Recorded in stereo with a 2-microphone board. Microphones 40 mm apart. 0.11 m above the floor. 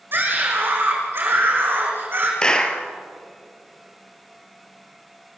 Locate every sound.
0.1 s a scream: 60° right (ahead or behind), 5.5 m
2.4 s a clap: 20° left (ahead or behind), 1.8 m